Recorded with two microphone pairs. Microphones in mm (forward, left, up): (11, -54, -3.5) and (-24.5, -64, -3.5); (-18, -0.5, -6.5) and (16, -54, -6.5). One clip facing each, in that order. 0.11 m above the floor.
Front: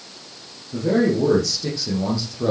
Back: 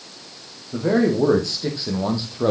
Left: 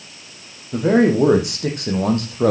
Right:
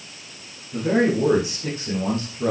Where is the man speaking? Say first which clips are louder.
Even, left 5 dB; 140° left, 4.5 m.